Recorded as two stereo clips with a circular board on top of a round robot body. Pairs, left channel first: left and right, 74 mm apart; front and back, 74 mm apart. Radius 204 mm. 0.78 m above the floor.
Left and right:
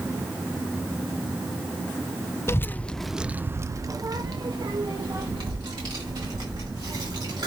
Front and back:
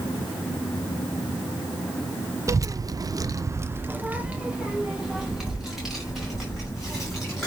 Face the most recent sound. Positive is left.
turn(degrees=-90)